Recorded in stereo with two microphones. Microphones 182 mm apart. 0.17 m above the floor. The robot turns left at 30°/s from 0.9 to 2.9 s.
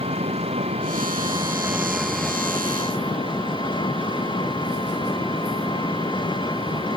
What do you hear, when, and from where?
0.0 s an engine running: 145° right; by 7.0 s 155° left